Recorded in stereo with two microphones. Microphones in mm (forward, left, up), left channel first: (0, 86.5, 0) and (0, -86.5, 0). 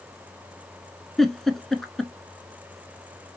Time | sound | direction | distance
1.2 | a giggle | centre (ahead or behind) | 0.6 m